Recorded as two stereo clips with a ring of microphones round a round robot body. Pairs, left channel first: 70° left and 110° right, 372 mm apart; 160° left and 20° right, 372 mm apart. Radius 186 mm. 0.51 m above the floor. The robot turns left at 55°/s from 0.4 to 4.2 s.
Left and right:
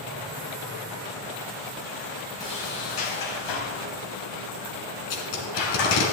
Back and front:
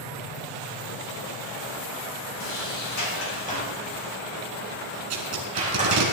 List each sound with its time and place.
2.4 s a sliding door: 150° left, 3.5 m; by 6.1 s 50° left, 3.5 m
5.1 s tape being pulled: 25° left, 2.5 m